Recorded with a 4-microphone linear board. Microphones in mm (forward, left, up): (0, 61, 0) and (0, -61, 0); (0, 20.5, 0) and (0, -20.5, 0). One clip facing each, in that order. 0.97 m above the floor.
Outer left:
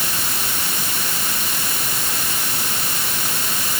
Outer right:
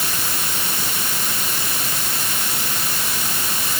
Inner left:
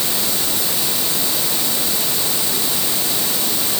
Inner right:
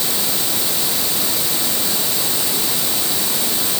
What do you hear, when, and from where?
Only background noise.